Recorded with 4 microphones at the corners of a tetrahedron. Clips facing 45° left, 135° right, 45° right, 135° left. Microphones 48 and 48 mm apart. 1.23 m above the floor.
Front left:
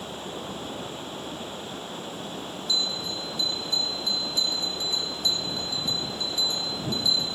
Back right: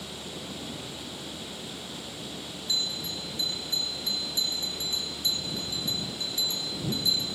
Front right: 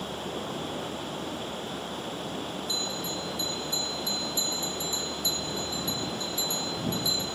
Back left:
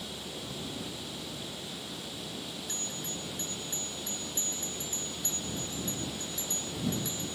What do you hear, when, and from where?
0.0 s running water: 5° right
2.7 s a bell: 165° left